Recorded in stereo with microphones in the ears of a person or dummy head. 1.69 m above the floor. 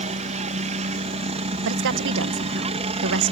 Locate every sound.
0.0 s a helicopter: 35° right (ahead or behind); by 3.3 s 30° right (ahead or behind)
1.6 s a woman speaking: 65° right (ahead or behind)